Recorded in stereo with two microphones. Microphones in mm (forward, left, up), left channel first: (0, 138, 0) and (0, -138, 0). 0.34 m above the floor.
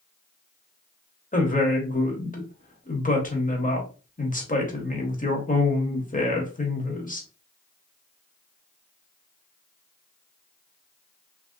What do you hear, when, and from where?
1.3 s a woman speaking: 30° left (ahead or behind), 1.0 m